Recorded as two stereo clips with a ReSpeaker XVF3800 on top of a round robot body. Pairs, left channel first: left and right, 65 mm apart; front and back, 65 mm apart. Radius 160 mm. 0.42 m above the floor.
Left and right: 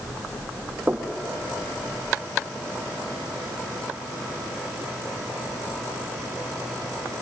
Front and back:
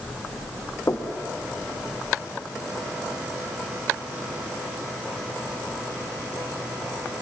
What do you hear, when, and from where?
0.9 s knocking: 30° right, 1.7 m